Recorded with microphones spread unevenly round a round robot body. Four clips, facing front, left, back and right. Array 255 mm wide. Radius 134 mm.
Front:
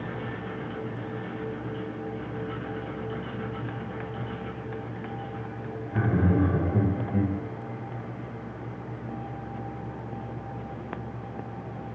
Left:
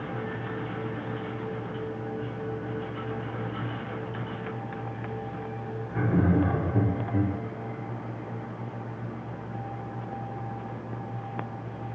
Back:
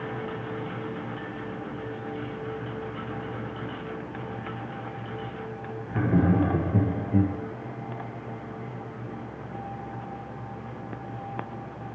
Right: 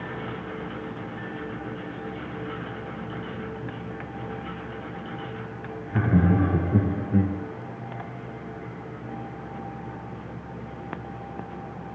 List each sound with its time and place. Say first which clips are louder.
5.9 s laughter: right 3 dB, back 2 dB; 105° right, 6.5 m; by 7.3 s 115° right, 5 m